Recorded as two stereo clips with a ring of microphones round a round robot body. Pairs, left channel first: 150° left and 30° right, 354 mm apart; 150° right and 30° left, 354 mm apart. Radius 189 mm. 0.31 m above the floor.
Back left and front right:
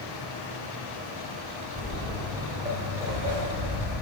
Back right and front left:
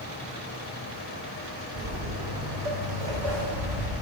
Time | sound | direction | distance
1.8 | footsteps | 70° left | 2 m